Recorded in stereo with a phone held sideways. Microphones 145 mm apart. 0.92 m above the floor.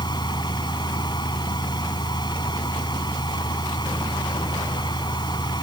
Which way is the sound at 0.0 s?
30° left (ahead or behind).